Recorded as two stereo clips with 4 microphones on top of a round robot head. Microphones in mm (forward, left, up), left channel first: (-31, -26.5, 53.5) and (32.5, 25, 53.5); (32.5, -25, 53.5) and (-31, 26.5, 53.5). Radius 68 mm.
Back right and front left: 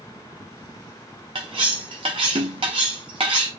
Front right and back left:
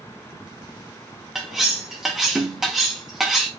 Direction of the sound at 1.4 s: 55° left.